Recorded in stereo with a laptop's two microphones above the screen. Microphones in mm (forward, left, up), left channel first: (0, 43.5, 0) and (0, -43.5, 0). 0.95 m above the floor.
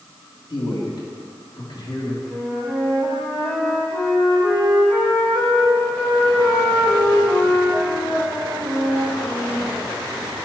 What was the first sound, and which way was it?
A man speaking, 50° left (ahead or behind).